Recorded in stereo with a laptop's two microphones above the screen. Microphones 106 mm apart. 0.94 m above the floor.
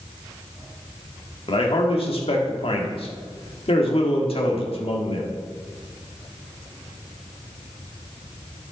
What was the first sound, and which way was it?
A man speaking, 60° left (ahead or behind).